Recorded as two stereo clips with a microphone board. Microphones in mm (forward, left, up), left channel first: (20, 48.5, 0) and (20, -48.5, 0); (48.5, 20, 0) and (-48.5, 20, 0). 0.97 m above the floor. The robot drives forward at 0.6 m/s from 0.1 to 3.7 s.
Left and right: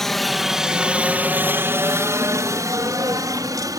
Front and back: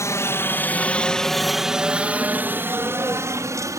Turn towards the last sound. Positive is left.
turn(degrees=-130)